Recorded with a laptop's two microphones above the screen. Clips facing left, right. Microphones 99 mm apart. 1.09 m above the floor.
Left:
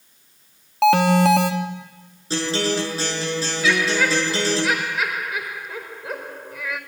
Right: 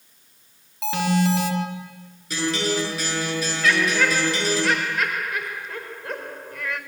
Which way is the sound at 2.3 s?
30° left (ahead or behind).